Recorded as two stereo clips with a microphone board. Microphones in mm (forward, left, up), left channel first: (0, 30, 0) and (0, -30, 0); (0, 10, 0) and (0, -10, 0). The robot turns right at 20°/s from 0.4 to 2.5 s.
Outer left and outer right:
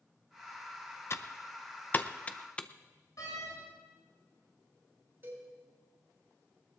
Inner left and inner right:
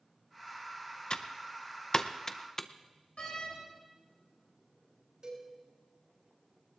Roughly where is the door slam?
Left.